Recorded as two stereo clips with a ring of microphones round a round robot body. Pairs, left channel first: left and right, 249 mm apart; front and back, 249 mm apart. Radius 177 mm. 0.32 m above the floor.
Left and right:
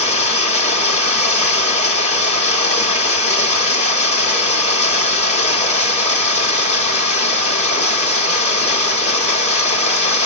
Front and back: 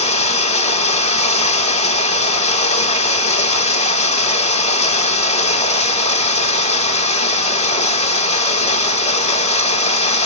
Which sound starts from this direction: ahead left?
Running water, at 0.0 s.